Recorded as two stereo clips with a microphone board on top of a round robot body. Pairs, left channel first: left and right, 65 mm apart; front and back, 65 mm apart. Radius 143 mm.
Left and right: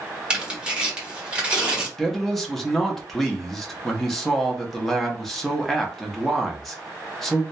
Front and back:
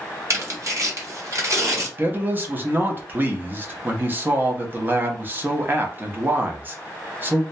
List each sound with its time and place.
0.3 s tearing paper: 160° right, 1.1 m
2.0 s a man speaking: 175° left, 0.8 m